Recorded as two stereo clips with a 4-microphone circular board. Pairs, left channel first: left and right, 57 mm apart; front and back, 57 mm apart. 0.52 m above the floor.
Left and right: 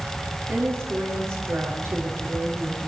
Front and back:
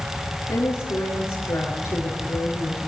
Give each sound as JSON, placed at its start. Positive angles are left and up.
{"t": 0.5, "sound": "a woman speaking", "azimuth_deg": -45, "distance_m": 7.0}